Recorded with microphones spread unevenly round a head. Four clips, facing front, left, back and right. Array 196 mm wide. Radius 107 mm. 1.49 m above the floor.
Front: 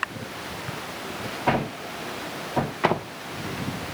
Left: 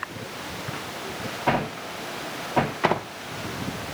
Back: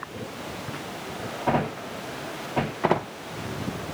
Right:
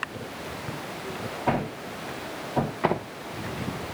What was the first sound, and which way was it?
Only background noise.